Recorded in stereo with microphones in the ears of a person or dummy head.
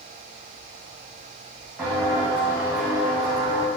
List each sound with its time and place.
1.8 s footsteps: centre (ahead or behind), 3.5 m; by 3.7 s 5° left (ahead or behind), 3 m